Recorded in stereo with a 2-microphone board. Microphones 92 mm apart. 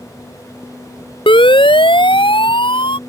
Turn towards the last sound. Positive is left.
turn(degrees=75)  # may be behind; listen again after turning